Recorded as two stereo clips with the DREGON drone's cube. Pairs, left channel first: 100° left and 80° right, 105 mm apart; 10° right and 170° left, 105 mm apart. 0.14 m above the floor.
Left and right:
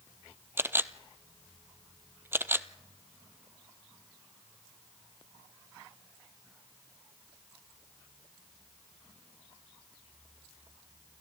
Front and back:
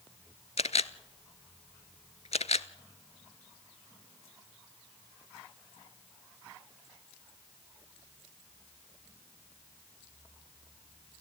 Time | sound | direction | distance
0.6 | a camera shutter | 10° right | 0.7 m